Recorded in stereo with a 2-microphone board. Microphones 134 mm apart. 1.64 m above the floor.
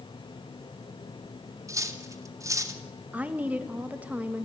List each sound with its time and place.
1.7 s cutlery clinking: 25° right (ahead or behind), 2.0 m
3.1 s a woman speaking: 10° right (ahead or behind), 1.9 m